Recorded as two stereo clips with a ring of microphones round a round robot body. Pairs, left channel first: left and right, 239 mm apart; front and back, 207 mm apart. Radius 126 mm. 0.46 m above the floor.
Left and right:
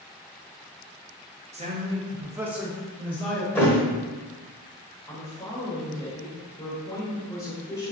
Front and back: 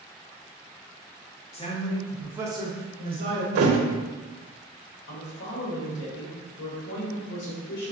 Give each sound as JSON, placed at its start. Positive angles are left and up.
{"t": 1.5, "sound": "a man speaking", "azimuth_deg": -45, "distance_m": 0.8}
{"t": 3.5, "sound": "a thud", "azimuth_deg": 170, "distance_m": 0.6}
{"t": 5.1, "sound": "a woman speaking", "azimuth_deg": 15, "distance_m": 1.7}